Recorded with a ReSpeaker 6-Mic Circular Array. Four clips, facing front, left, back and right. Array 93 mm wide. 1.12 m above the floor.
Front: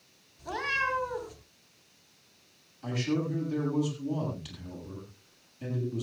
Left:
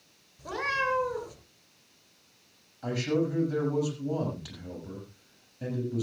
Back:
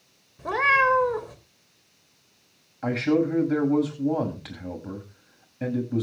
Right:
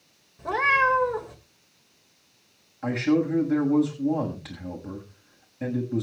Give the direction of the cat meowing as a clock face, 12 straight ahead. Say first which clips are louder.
Right 8 dB, back 11 dB; 5 o'clock.